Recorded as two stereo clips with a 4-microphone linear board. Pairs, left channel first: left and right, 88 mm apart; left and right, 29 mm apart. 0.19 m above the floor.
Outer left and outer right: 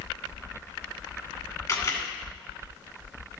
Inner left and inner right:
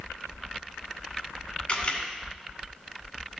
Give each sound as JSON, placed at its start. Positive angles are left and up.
{"t": 1.7, "sound": "a camera shutter", "side_deg": 40, "distance_m": 2.0}